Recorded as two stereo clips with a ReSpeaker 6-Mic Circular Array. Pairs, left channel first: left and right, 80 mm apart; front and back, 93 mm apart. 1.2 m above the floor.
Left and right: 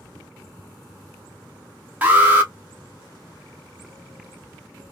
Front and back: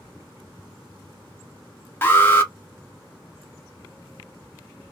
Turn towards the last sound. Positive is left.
turn(degrees=-45)